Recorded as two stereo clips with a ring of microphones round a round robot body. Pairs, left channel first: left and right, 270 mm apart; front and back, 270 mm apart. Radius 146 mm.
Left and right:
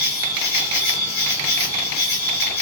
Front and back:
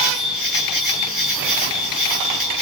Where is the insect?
100° left, 1.4 m.